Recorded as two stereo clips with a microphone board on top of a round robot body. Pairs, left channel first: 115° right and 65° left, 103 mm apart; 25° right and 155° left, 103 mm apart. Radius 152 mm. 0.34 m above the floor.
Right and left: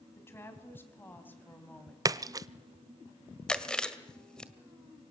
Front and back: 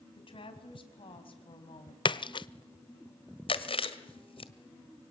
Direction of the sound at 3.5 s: 30° right.